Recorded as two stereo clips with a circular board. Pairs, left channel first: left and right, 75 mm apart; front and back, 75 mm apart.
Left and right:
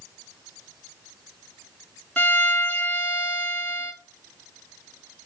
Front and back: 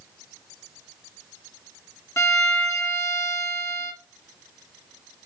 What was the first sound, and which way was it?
A violin, 25° left.